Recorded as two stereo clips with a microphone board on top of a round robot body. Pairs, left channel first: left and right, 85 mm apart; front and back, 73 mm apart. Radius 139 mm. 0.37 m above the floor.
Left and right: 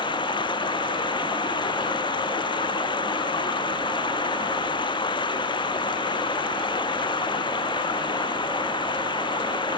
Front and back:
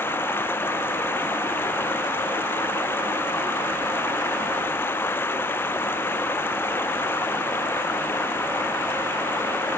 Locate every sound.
0.0 s running water: 65° left